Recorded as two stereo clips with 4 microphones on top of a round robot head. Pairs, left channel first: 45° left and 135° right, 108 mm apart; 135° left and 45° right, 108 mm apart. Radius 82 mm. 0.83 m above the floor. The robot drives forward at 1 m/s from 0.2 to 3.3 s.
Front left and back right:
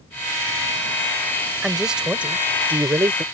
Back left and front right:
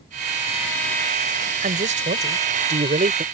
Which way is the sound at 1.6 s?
45° right.